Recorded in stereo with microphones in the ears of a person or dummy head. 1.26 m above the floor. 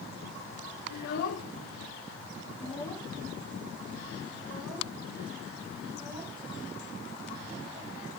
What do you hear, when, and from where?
0.9 s a child speaking: 60° left (ahead or behind), 1.1 m; by 7.9 s 20° right (ahead or behind), 3.5 m